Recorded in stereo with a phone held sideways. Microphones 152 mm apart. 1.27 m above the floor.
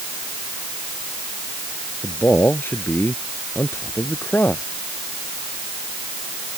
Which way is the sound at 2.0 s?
15° left (ahead or behind).